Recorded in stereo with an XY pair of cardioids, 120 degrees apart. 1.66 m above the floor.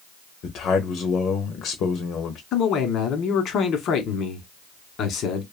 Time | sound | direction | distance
0.4 | a man speaking | 60° left | 0.6 m
2.5 | a man speaking | 65° left | 1.0 m